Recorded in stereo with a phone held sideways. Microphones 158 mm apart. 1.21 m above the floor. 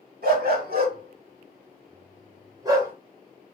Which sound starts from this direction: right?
A dog barking, at 0.2 s.